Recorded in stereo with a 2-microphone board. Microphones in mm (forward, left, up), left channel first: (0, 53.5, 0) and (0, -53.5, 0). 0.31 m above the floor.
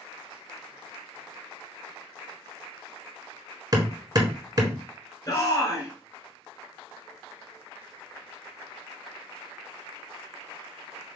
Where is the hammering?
40° right (ahead or behind), 1.3 m.